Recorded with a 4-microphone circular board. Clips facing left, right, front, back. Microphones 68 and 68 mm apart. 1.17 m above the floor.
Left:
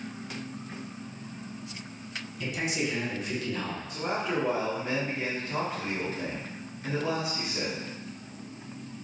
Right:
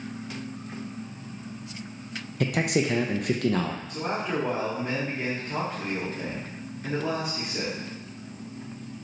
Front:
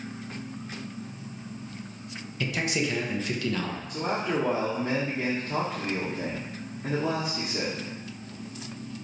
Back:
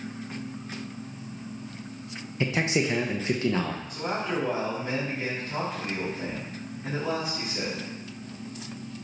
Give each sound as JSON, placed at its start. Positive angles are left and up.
{"t": 2.4, "sound": "a man speaking", "azimuth_deg": -115, "distance_m": 0.6}
{"t": 3.9, "sound": "a man speaking", "azimuth_deg": -20, "distance_m": 1.5}